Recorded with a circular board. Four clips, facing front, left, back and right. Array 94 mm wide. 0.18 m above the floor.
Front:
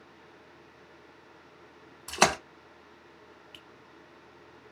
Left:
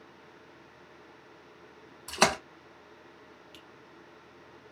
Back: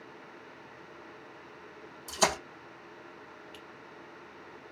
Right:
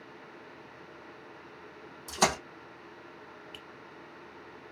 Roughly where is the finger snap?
Ahead right.